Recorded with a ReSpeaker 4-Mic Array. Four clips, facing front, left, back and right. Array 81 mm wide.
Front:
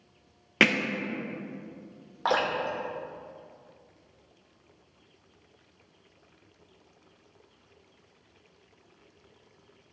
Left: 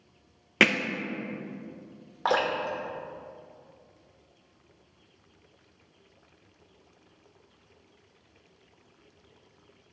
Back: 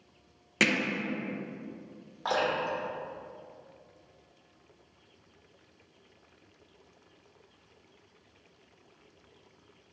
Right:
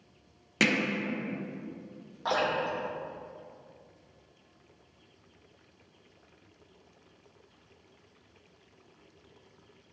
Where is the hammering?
55° left, 0.6 m.